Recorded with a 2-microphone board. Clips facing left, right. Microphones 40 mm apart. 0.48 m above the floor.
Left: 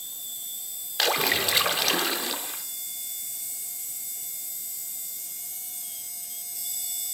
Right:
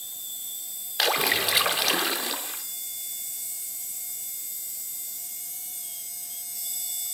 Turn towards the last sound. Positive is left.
turn(degrees=-5)  # may be behind; listen again after turning